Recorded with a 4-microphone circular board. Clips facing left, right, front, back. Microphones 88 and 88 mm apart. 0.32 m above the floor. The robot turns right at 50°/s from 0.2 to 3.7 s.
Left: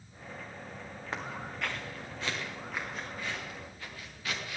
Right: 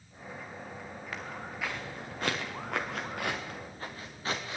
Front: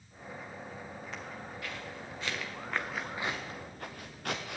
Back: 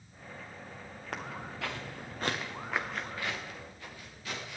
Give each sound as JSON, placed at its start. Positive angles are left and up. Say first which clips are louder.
{"t": 1.1, "sound": "footsteps", "louder": "left 3 dB, back 7 dB", "azimuth_deg": 150, "distance_m": 1.6}